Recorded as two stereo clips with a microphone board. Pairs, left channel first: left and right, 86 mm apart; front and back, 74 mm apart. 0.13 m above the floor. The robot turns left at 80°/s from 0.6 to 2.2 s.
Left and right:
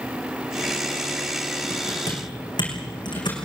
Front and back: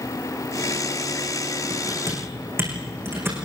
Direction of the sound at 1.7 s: 165° left.